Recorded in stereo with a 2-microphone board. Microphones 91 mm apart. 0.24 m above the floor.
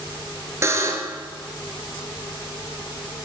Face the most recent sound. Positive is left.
turn(degrees=-35)  # may be behind; listen again after turning